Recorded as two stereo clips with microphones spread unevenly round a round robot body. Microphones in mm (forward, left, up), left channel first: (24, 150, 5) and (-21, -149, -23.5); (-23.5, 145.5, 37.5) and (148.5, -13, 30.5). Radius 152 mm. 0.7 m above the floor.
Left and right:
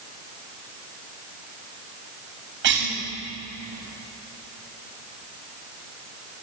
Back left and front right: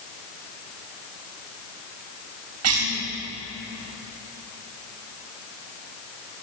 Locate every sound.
2.6 s a cough: 45° right, 4 m